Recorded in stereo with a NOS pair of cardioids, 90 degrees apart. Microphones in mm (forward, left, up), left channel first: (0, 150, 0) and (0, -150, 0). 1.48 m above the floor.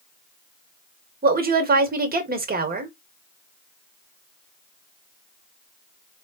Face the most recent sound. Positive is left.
turn(degrees=-30)